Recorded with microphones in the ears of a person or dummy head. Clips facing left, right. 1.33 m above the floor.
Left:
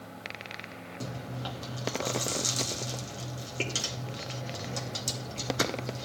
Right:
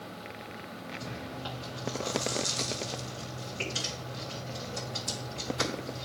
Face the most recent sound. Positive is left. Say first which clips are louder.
# left 3 dB
turn(degrees=55)  # may be behind; listen again after turning